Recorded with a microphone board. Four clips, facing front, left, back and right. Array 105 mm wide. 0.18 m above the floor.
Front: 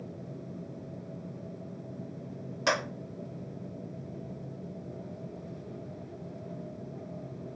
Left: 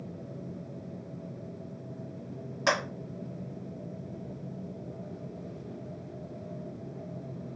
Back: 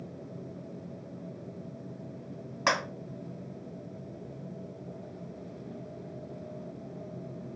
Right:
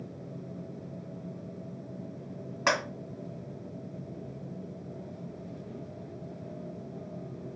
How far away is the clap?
About 1.6 m.